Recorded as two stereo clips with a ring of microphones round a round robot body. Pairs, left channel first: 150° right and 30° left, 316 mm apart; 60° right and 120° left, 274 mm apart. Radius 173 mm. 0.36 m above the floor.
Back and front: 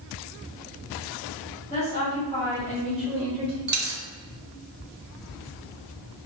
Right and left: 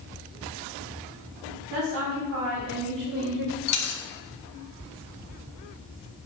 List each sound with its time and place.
1.7 s a woman speaking: 140° left, 4 m; by 3.6 s 90° left, 2 m
3.7 s a dropped coin: 30° right, 1.7 m